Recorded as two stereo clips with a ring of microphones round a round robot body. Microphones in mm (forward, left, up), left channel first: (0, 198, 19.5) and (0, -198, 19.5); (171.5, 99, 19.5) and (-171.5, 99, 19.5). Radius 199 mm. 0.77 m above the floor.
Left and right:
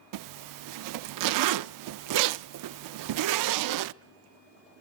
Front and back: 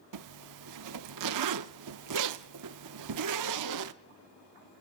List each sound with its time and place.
0.1 s a zipper: 135° right, 0.5 m